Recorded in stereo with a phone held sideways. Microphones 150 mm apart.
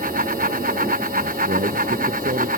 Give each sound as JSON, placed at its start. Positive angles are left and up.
{"t": 0.0, "sound": "a fan", "side_deg": -75}
{"t": 1.2, "sound": "a man speaking", "side_deg": -65}